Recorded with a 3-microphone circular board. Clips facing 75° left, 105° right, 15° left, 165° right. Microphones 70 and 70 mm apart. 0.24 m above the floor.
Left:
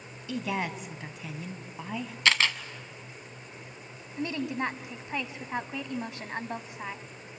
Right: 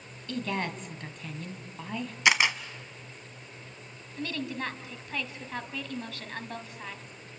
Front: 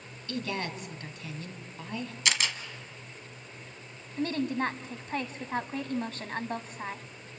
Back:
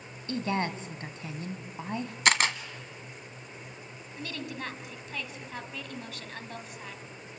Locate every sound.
0.3 s a woman speaking: 155° left, 1.9 m
2.2 s a camera shutter: 175° right, 1.3 m
4.2 s a woman speaking: 20° left, 1.7 m